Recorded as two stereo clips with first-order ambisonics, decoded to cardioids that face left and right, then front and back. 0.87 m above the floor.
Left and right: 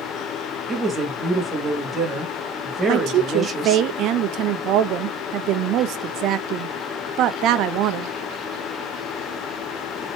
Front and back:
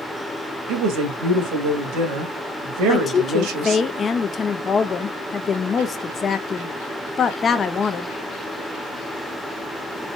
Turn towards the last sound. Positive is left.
turn(degrees=-65)